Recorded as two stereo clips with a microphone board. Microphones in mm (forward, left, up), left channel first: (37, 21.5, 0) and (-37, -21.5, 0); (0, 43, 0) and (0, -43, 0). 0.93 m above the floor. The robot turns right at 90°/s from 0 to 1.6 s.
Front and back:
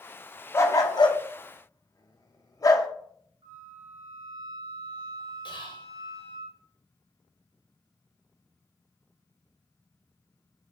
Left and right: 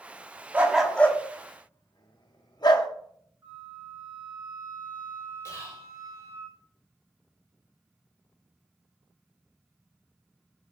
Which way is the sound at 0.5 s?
25° right.